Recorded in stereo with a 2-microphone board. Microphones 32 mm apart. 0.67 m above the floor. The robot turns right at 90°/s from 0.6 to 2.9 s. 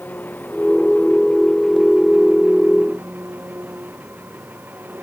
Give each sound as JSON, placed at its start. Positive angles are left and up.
{"t": 0.0, "sound": "an engine running", "azimuth_deg": 70}